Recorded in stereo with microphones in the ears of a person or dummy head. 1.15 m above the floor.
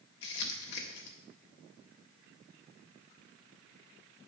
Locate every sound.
0.2 s crumpling: 65° left (ahead or behind), 1.7 m